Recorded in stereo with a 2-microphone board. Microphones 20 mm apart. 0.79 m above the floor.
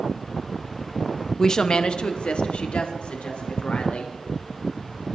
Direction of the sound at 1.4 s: 20° left (ahead or behind).